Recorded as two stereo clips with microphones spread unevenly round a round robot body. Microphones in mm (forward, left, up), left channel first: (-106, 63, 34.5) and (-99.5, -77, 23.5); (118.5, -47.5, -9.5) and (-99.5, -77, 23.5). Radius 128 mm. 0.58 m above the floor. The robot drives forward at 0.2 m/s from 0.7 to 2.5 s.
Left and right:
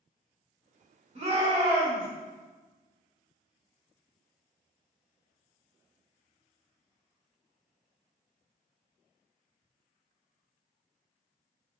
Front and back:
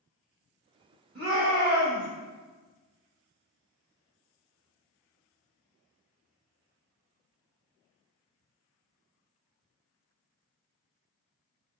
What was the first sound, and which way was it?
A shout, 125° right.